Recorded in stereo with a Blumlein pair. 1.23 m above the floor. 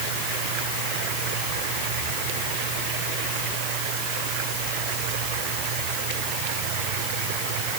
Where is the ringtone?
No ringtone in this recording.